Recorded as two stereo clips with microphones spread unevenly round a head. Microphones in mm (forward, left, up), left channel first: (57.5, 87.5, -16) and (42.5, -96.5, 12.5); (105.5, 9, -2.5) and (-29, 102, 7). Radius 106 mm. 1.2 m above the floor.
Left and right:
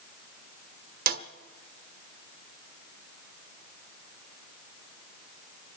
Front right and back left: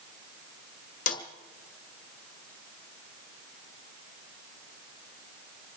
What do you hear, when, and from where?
1.1 s a snare drum: 80° right, 1.3 m